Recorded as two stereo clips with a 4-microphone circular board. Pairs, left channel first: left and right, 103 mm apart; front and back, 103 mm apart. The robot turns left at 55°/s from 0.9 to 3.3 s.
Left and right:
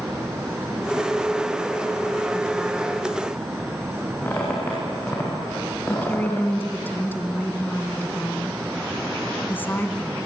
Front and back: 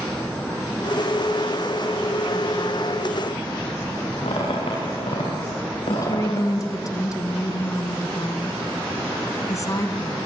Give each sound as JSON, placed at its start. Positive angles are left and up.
{"t": 4.2, "sound": "a squeak", "azimuth_deg": 20, "distance_m": 9.5}
{"t": 5.9, "sound": "a woman speaking", "azimuth_deg": 30, "distance_m": 2.0}